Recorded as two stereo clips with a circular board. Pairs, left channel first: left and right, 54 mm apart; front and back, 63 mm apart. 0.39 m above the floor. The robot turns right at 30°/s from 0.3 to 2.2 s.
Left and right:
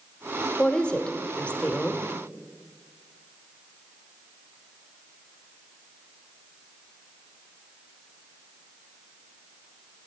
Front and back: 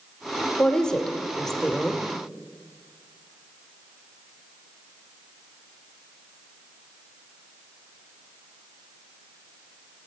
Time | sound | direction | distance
0.6 | a woman speaking | 50° left | 0.8 m